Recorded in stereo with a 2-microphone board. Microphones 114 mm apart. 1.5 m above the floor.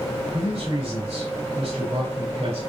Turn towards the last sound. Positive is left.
turn(degrees=-65)  # may be behind; listen again after turning